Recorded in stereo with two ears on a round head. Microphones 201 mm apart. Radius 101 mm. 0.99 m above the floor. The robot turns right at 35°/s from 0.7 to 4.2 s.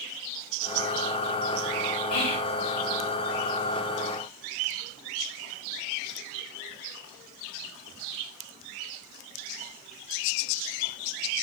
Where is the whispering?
85° left, 5 m; by 2.6 s 75° left (ahead or behind), 5 m.